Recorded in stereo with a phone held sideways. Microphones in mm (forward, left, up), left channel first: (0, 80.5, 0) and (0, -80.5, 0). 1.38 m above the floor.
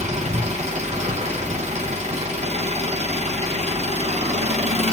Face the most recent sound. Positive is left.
turn(degrees=-45)  # may be behind; listen again after turning